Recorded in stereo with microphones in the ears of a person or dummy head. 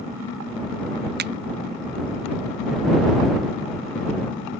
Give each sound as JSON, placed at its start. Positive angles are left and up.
{"t": 1.2, "sound": "a finger snap", "side_deg": -50}